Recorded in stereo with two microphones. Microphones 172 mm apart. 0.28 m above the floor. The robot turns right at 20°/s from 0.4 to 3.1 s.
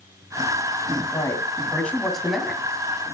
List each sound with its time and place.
1.1 s a man speaking: 155° left, 2.5 m; by 2.6 s 175° right, 2.5 m